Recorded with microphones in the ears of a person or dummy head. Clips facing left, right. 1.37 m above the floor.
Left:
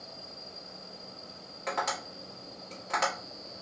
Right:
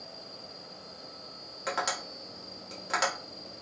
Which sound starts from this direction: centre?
Tapping, at 1.7 s.